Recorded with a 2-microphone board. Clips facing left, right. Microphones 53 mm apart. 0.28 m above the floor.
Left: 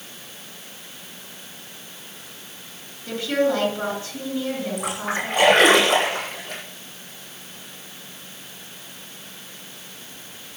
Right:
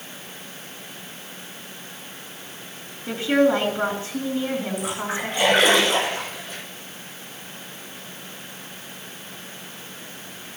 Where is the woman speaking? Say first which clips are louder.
Right 3 dB; 25° right (ahead or behind), 5 m.